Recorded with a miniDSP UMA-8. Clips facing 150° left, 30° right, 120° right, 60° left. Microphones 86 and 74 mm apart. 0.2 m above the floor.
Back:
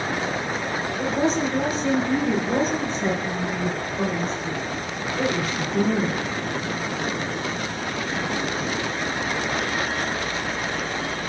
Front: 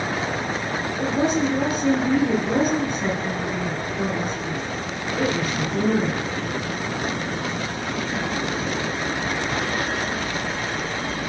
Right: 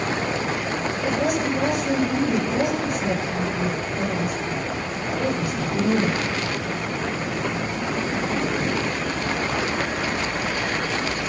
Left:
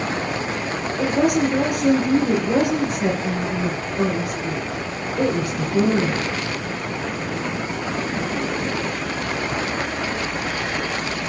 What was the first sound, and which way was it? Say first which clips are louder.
A woman speaking: front 1 dB, left 6 dB; 45° left.